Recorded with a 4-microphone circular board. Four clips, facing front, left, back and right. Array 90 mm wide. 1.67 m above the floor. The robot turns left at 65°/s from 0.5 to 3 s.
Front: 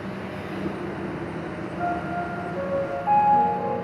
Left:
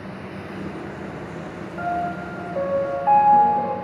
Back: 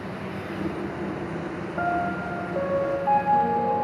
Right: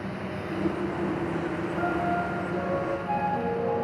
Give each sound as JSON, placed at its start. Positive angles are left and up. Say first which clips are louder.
{"t": 1.8, "sound": "a piano", "louder": "left 3 dB, back 1 dB", "azimuth_deg": 175, "distance_m": 4.0}